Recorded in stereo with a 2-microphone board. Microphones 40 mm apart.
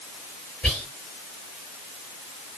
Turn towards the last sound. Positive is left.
turn(degrees=30)  # may be behind; listen again after turning